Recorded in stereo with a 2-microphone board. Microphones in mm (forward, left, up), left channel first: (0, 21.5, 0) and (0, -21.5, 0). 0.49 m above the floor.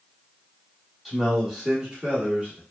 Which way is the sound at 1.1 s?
Centre (ahead or behind).